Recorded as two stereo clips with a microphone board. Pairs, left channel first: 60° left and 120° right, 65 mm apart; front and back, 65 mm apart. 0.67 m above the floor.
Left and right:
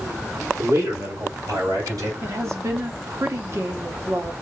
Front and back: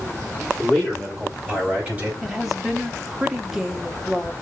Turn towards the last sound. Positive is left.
turn(degrees=-95)